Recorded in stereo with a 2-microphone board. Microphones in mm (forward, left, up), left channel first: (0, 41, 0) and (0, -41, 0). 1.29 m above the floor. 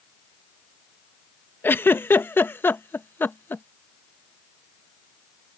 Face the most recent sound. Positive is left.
turn(degrees=25)  # may be behind; listen again after turning